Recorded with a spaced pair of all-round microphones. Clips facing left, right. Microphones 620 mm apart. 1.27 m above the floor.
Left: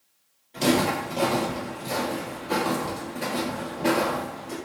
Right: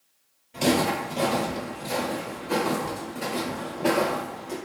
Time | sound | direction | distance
0.5 | footsteps | 35° right (ahead or behind) | 1.5 m